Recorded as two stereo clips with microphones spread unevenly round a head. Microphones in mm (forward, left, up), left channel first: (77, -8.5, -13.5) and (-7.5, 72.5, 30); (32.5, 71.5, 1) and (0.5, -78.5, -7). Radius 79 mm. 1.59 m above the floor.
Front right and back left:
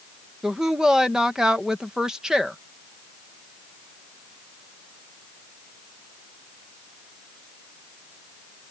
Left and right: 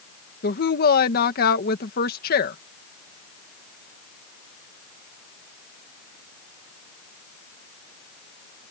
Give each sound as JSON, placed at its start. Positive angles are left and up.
{"t": 0.4, "sound": "a woman speaking", "azimuth_deg": 50}